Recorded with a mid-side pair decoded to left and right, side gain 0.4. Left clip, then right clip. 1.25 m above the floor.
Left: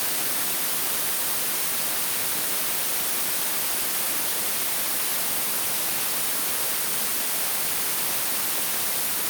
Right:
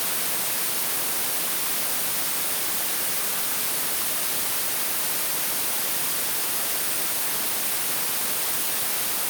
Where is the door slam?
I don't hear a door slam.